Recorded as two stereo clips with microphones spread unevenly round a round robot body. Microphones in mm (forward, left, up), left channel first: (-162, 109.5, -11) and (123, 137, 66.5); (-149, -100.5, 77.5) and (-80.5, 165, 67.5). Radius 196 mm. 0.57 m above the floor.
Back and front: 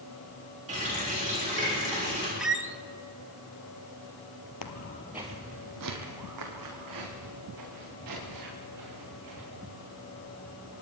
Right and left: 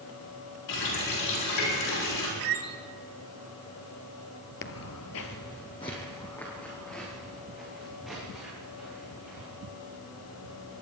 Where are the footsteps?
140° right, 0.9 m; by 10.8 s 10° right, 9.5 m.